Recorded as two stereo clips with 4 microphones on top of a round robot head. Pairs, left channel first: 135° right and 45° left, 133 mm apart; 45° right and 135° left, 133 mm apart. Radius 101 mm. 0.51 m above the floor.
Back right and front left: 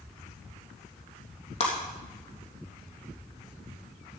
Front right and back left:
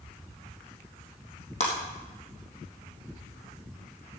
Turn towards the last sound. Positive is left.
turn(degrees=-90)